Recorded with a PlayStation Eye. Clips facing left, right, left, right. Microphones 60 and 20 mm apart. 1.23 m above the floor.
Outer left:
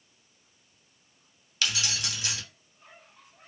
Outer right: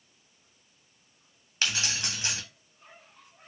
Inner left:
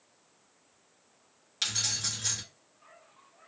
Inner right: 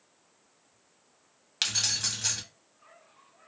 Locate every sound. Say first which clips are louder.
1.6 s keys jangling: even, inner right 3 dB; 35° right (ahead or behind), 0.8 m